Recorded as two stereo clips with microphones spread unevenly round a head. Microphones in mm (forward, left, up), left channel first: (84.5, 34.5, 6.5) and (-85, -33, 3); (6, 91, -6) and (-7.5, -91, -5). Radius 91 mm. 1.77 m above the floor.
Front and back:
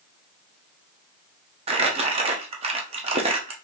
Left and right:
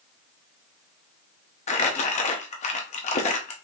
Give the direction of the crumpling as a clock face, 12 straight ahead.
7 o'clock.